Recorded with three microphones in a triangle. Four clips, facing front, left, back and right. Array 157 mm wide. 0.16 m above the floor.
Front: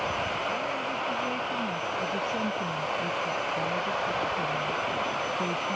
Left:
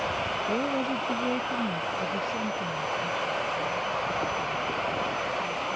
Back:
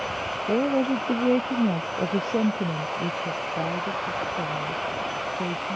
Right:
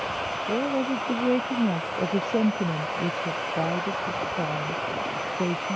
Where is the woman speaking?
170° right; by 5.8 s 100° right.